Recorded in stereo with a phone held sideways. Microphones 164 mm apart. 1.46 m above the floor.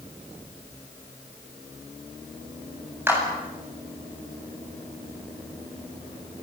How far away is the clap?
About 8 m.